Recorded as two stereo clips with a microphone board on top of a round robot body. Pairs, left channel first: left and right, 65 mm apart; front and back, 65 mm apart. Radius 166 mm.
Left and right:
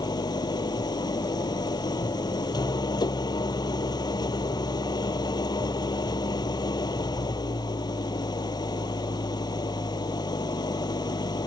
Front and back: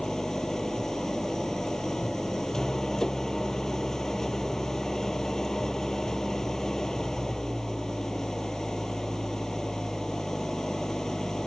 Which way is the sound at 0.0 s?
80° left.